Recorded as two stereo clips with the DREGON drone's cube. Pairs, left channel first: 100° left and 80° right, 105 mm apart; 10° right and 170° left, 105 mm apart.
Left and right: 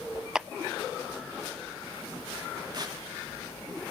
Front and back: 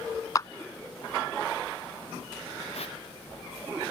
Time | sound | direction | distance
0.3 | a clap | straight ahead | ?
2.7 | tearing paper | 30° right | ?